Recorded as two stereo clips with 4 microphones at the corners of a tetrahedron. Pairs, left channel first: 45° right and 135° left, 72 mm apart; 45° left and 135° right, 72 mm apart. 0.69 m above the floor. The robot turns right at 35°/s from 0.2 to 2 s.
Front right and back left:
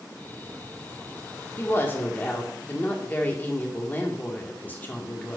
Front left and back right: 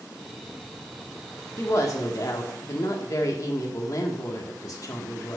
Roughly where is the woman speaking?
Ahead.